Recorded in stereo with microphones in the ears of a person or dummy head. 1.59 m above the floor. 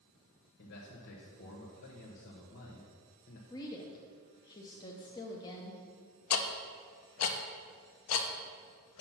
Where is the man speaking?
70° left (ahead or behind), 1.3 m.